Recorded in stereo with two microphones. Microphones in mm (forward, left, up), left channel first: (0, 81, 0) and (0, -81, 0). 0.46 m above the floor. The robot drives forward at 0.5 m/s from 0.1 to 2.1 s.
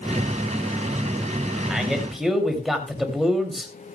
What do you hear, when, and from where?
1.7 s a man speaking: centre (ahead or behind), 3 m